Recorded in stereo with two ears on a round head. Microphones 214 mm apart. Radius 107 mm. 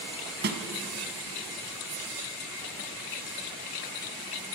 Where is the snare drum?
45° right (ahead or behind), 2 m.